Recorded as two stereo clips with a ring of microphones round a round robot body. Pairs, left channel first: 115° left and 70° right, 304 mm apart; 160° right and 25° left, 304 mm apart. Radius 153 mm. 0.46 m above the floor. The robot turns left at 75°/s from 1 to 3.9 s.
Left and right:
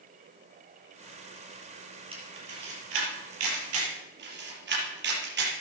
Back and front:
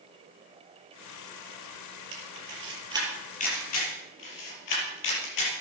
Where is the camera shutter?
10° left, 5 m; by 5.6 s 125° right, 5 m.